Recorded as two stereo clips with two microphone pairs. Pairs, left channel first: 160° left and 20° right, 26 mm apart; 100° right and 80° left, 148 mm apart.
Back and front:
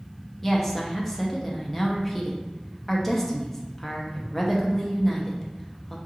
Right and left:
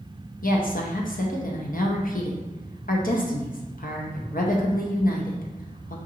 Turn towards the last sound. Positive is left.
turn(degrees=-115)